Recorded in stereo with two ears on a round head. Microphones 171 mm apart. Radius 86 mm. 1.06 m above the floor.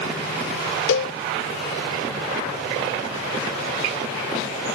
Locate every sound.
0.9 s a cowbell: 90° left